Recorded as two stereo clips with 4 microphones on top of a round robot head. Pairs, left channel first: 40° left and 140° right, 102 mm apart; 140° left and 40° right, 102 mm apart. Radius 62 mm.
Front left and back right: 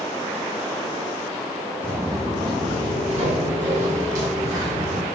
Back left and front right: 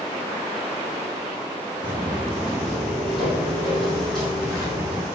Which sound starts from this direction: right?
Footsteps, at 1.8 s.